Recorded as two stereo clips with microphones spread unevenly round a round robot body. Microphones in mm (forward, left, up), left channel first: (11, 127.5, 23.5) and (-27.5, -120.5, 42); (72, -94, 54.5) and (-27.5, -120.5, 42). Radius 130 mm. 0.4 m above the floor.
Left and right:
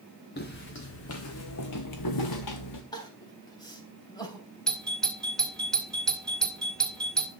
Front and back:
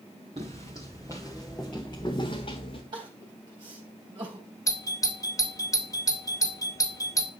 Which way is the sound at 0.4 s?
135° left.